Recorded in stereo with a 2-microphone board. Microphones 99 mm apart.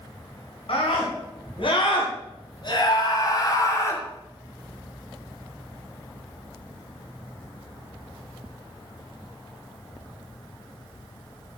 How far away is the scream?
About 4 m.